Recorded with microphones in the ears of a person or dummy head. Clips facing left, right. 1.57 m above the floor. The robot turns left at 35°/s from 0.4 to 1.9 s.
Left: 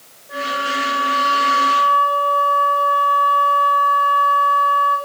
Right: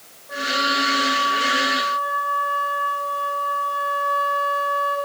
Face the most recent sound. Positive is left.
turn(degrees=130)